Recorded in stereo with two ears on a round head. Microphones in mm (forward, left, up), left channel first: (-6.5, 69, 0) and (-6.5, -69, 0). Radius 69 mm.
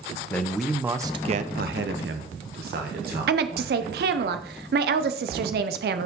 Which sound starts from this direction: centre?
A man speaking, at 0.3 s.